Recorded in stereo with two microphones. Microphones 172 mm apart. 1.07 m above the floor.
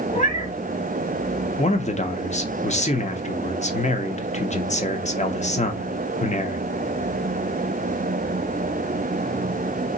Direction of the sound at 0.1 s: 45° left (ahead or behind).